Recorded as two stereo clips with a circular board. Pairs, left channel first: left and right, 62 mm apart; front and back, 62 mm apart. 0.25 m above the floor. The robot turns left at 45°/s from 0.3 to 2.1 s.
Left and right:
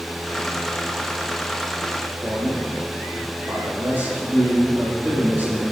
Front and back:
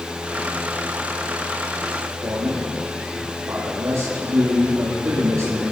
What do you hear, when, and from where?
2.2 s a man speaking: 145° right, 8 m